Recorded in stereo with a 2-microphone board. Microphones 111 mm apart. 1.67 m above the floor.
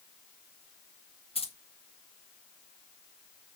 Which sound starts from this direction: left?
Keys jangling, at 1.4 s.